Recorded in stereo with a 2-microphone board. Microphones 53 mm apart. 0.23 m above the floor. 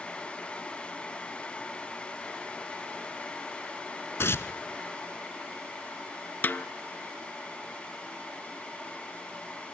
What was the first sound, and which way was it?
Tearing paper, 50° left (ahead or behind).